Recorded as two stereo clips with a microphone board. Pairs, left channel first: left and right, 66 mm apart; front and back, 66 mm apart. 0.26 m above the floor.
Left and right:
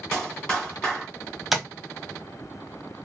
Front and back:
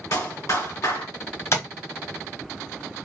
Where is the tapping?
5° right, 0.8 m.